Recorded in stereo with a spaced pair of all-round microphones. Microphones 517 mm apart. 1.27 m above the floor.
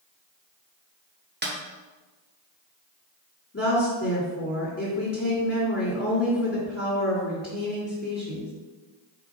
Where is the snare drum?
20° right (ahead or behind), 1.0 m.